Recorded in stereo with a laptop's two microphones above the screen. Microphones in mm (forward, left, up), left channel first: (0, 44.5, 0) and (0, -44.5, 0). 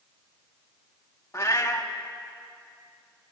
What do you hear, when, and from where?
1.3 s a cat meowing: 35° left (ahead or behind), 1.0 m